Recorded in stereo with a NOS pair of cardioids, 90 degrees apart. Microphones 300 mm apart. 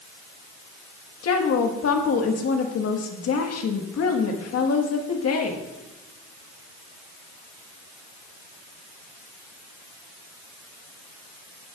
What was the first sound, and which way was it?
A woman speaking, 55° left.